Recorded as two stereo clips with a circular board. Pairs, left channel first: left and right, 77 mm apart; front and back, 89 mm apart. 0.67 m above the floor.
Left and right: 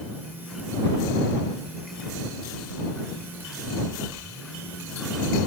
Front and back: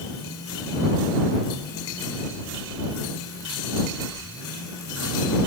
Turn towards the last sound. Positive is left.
No sound to turn to.